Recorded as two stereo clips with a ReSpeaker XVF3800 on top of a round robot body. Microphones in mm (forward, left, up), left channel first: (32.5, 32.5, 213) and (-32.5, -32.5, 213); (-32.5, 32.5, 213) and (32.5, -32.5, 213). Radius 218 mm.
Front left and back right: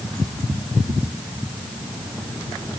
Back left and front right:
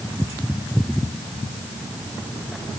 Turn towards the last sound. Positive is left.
No sound to turn to.